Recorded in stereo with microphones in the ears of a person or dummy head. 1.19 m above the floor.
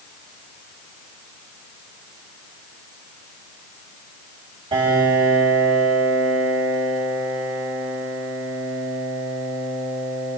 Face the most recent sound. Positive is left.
turn(degrees=-25)  # may be behind; listen again after turning